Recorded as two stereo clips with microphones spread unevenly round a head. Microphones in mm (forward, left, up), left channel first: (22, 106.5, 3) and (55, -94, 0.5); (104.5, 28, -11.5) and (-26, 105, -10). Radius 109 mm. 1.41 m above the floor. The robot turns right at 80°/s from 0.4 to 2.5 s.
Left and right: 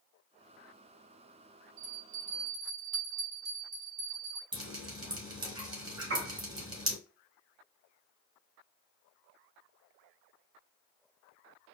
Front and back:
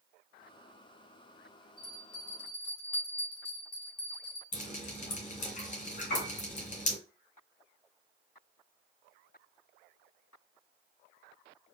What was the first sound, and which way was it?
A bell, 80° right.